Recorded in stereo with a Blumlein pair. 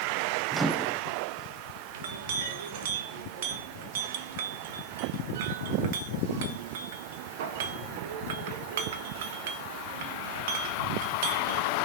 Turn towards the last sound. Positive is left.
turn(degrees=-55)